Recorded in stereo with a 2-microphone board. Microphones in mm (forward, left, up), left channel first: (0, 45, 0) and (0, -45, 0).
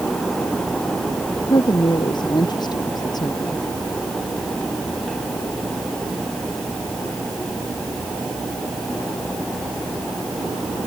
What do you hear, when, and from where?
1.5 s a woman speaking: 55° left (ahead or behind); by 3.6 s 40° left (ahead or behind)